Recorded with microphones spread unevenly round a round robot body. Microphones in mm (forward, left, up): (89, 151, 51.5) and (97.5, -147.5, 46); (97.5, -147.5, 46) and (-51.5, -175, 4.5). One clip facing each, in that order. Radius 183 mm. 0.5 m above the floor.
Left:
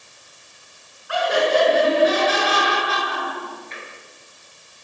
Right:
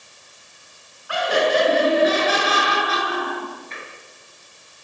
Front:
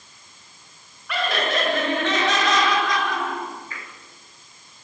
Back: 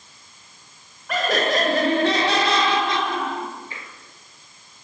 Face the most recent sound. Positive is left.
turn(degrees=-105)